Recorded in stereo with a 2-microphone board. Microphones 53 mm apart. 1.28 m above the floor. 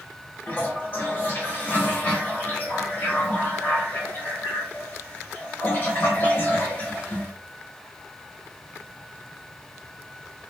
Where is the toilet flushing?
35° left (ahead or behind), 1.1 m.